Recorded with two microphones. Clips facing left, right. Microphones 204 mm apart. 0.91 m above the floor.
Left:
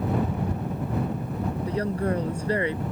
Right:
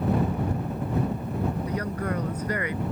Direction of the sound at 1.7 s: 30° left (ahead or behind).